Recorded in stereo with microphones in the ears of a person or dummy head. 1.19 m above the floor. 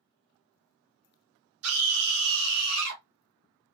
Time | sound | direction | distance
1.6 | a scream | 75° right (ahead or behind) | 3 m